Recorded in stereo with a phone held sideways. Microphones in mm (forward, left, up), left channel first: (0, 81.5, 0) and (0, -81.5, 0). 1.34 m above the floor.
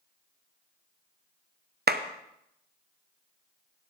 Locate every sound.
1.9 s a clap: 75° right (ahead or behind), 0.7 m